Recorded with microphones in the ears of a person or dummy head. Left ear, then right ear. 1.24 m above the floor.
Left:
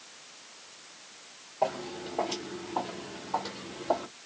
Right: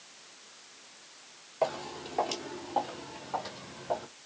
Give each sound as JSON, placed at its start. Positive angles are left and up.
{"t": 1.6, "sound": "footsteps", "side_deg": -45, "distance_m": 1.8}